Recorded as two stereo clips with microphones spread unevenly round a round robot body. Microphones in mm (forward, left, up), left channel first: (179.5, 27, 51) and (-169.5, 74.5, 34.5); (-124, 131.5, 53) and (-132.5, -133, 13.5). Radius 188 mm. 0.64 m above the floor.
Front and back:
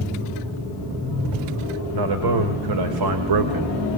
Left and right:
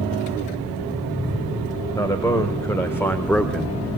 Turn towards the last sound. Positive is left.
turn(degrees=-175)